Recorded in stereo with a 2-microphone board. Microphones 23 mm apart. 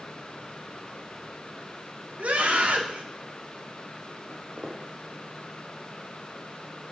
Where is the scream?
80° right, 3.5 m.